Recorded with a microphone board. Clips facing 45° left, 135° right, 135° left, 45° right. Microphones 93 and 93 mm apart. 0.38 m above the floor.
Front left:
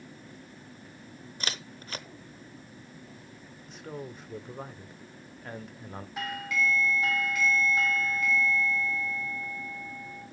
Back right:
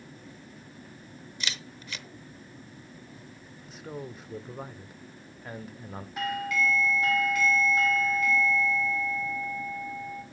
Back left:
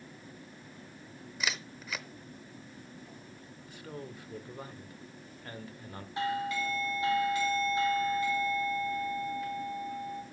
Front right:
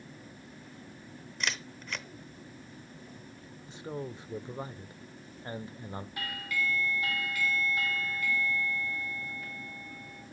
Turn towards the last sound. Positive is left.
turn(degrees=135)